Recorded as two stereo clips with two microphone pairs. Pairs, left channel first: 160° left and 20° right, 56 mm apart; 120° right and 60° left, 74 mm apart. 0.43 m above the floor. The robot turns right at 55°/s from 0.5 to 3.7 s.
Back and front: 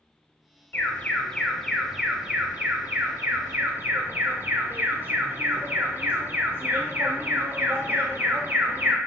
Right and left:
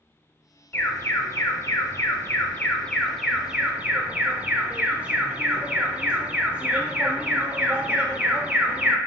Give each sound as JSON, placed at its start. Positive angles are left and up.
{"t": 0.7, "sound": "an alarm", "azimuth_deg": -165, "distance_m": 0.8}